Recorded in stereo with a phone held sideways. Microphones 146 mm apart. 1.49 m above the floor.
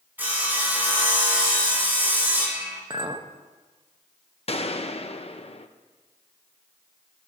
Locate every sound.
0.2 s sawing: 15° right (ahead or behind), 5 m
2.9 s a clink: 35° right (ahead or behind), 0.9 m
4.5 s a gunshot: 45° left (ahead or behind), 0.8 m